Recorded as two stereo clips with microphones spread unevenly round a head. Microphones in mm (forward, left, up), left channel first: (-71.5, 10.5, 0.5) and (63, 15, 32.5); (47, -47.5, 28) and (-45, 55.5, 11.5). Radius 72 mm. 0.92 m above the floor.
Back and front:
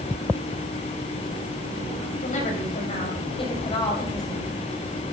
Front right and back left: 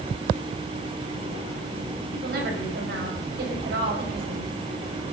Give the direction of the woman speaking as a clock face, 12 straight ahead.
7 o'clock.